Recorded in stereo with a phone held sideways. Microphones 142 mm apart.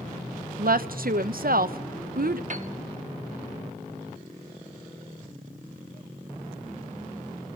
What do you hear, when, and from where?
0.6 s a woman speaking: 70° right (ahead or behind), 0.7 m
2.5 s a piano: 55° right (ahead or behind), 1.0 m